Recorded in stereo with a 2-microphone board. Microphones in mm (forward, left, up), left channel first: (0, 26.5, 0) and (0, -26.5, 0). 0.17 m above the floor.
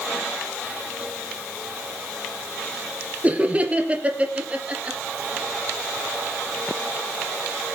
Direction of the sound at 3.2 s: 25° right (ahead or behind).